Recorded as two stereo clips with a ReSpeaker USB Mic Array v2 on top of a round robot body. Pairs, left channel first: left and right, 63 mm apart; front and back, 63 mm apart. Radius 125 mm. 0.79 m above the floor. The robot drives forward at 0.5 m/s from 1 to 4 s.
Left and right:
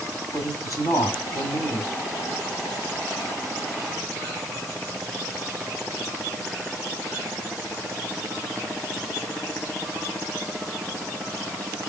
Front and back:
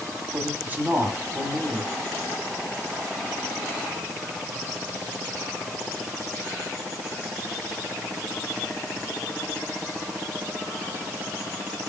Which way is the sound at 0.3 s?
120° left.